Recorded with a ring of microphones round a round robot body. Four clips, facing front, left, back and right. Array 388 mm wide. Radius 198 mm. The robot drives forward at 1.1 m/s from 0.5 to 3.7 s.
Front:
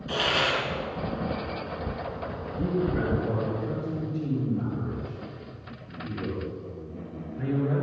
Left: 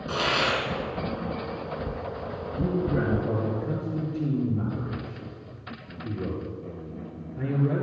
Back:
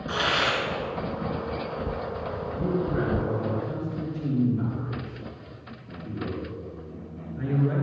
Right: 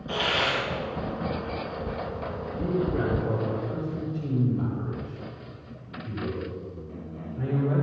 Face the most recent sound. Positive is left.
turn(degrees=110)